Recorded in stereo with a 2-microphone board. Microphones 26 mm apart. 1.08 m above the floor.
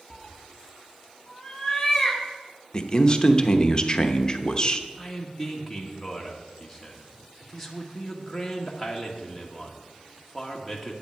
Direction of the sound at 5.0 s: 5° left (ahead or behind).